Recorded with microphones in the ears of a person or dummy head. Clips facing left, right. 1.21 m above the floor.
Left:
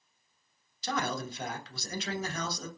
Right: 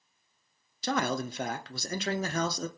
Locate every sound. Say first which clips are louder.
0.8 s a man speaking: right 4 dB; 50° right (ahead or behind), 0.5 m